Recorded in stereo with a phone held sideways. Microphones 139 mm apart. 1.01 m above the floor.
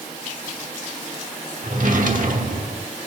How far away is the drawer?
About 1.1 m.